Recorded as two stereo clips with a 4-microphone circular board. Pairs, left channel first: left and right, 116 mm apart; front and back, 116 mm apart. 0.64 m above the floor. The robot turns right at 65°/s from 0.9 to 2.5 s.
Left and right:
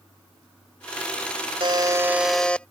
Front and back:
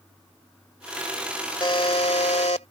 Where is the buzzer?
50° right; by 2.7 s 10° left.